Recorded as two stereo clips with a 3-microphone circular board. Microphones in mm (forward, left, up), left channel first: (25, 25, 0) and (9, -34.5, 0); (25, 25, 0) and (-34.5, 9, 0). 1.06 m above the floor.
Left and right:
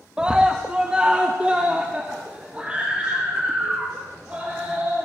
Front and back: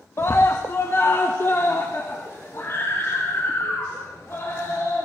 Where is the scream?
30° right, 1.3 m; by 5.0 s 35° right, 5 m.